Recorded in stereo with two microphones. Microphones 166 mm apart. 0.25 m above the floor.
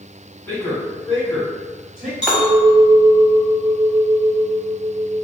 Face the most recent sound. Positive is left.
turn(degrees=-5)  # may be behind; listen again after turning